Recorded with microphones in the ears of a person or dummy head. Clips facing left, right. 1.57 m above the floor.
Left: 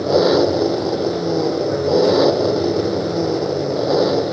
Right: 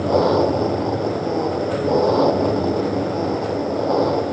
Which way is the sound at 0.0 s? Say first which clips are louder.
Left 2 dB; 20° left (ahead or behind).